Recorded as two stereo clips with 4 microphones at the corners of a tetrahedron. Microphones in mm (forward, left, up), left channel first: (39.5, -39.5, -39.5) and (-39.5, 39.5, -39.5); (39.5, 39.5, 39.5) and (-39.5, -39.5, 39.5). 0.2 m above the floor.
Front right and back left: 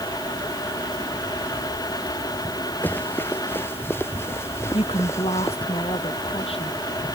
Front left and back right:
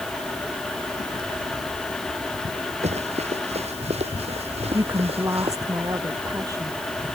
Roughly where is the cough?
No cough in this recording.